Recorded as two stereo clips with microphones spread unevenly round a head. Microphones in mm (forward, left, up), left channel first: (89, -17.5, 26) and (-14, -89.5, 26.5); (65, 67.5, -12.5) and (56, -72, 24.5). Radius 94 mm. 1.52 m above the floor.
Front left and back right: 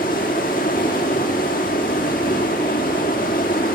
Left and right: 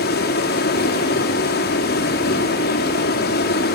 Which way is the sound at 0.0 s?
80° left.